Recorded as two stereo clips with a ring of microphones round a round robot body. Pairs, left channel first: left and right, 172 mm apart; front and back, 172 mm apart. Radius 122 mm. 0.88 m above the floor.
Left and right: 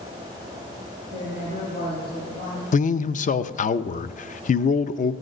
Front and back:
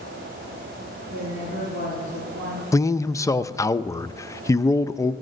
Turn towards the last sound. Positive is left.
turn(degrees=70)